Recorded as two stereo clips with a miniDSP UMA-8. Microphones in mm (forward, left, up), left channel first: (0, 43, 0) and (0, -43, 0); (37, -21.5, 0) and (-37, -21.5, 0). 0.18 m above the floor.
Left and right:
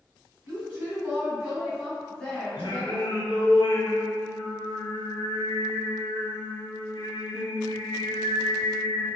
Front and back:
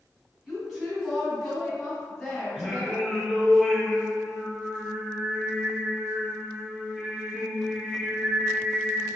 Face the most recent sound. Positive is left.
turn(degrees=100)